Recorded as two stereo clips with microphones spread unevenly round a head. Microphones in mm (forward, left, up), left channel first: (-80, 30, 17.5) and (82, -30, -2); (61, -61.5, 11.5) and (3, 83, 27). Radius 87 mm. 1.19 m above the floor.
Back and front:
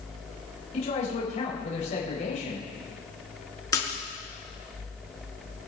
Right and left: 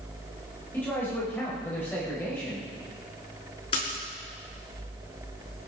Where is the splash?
130° right, 5.5 m.